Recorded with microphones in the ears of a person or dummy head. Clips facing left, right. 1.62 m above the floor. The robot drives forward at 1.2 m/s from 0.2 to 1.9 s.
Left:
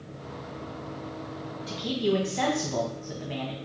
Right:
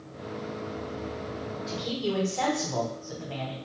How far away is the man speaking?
About 1.2 m.